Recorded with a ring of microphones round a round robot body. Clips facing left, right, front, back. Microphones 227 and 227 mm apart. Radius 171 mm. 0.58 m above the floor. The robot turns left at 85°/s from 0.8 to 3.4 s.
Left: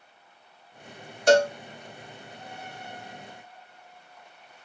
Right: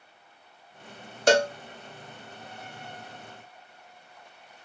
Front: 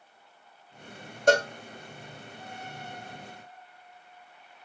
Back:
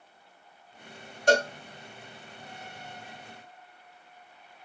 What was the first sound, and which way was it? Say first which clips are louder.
A cowbell: left 2 dB, front 1 dB; 60° right.